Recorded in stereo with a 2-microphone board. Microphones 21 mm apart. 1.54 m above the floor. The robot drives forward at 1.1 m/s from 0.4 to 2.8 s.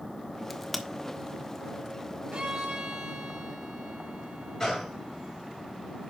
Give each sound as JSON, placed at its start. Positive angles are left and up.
{"t": 0.5, "sound": "a crack", "side_deg": -5, "distance_m": 1.1}
{"t": 2.3, "sound": "a violin", "side_deg": -70, "distance_m": 4.0}
{"t": 4.6, "sound": "a gunshot", "side_deg": 10, "distance_m": 5.0}